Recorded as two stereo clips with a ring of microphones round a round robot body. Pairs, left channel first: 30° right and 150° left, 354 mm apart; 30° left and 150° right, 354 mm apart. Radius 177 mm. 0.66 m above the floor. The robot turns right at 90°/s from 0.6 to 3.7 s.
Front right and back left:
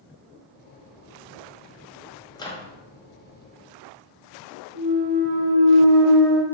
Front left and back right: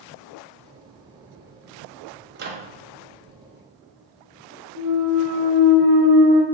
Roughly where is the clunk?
Behind.